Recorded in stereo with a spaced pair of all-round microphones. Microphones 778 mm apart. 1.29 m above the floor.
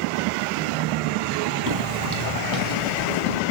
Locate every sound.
1.7 s footsteps: 25° right (ahead or behind), 2 m; by 3.4 s 45° right (ahead or behind), 3.5 m